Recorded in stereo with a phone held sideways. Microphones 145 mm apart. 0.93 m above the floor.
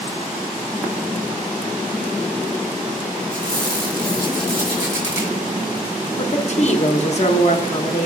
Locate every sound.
3.3 s a squeak: 15° right (ahead or behind), 2.5 m
6.2 s a woman speaking: 50° left (ahead or behind), 0.9 m